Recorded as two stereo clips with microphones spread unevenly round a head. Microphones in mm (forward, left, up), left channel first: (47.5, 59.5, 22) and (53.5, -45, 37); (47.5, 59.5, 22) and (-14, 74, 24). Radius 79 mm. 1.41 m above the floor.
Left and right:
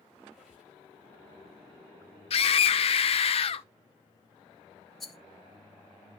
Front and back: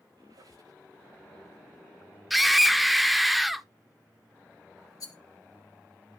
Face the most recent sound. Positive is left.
turn(degrees=0)